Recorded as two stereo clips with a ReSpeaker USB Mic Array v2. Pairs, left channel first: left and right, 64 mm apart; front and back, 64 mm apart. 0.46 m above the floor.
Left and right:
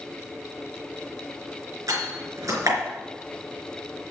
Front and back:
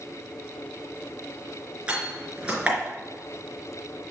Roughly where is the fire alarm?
No fire alarm in this recording.